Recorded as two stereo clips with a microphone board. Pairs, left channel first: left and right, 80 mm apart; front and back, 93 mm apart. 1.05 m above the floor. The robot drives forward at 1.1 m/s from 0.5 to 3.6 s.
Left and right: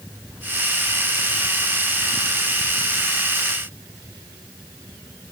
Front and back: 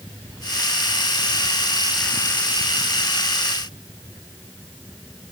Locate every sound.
Only background noise.